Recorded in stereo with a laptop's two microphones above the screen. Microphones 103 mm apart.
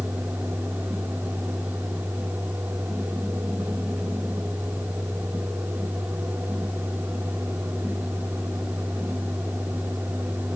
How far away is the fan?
About 1.2 m.